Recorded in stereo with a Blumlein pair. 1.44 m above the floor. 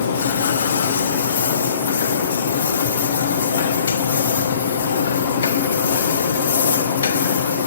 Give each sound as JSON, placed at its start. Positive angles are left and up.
{"t": 0.0, "sound": "a machine running", "azimuth_deg": 65, "distance_m": 1.2}